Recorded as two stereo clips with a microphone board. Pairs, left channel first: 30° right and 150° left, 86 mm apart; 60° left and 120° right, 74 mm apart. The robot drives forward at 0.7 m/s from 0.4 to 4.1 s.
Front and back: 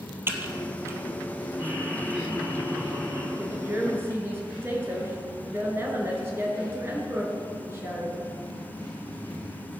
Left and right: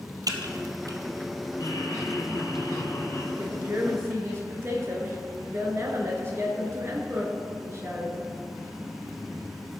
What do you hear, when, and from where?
0.3 s typing on a keyboard: 150° right, 1.3 m; by 1.0 s 155° right, 1.6 m
1.6 s laughter: 80° left, 4 m; by 3.3 s 100° left, 4 m
3.4 s a woman speaking: 155° right, 2 m; by 8.2 s 160° right, 2.5 m